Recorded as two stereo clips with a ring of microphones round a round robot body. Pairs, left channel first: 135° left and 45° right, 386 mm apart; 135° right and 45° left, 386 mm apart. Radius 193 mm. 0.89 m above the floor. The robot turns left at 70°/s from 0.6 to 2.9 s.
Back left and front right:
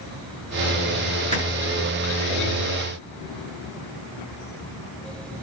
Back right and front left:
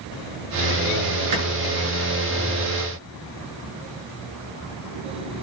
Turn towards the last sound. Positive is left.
turn(degrees=-80)